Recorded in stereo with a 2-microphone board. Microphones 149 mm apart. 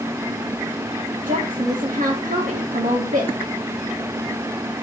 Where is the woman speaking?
85° right, 1.8 m.